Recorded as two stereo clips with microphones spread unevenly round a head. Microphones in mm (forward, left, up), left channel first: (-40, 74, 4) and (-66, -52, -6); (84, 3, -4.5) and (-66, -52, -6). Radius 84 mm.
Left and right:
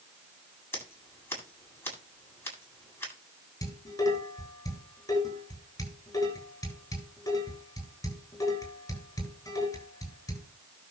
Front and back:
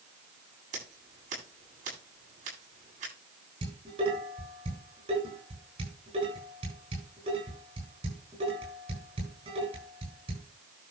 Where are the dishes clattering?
140° left, 9 m.